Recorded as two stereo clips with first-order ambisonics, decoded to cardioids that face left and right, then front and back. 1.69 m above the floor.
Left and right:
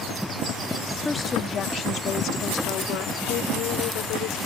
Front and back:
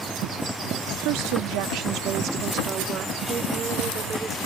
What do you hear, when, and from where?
1.0 s a woman speaking: 170° left; by 4.4 s 105° left